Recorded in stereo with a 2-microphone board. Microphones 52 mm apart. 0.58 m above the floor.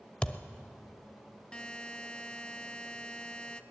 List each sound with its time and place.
0.2 s a thud: 25° left (ahead or behind), 0.7 m
1.5 s a buzzer: 20° left (ahead or behind), 0.5 m